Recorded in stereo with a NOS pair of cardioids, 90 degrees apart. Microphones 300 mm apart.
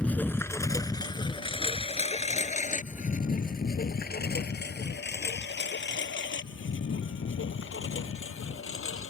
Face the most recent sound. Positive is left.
turn(degrees=45)